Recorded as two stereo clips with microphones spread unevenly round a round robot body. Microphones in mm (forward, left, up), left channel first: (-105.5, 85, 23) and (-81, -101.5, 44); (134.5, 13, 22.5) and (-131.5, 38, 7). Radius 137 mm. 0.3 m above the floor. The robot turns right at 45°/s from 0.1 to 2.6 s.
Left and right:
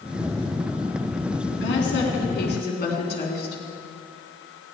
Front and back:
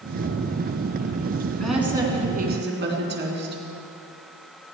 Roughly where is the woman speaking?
Left.